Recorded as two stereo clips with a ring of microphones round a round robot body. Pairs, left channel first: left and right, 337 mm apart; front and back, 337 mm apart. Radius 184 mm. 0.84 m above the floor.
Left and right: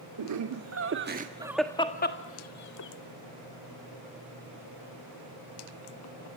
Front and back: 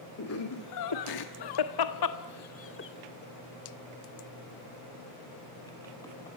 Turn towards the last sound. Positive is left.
turn(degrees=80)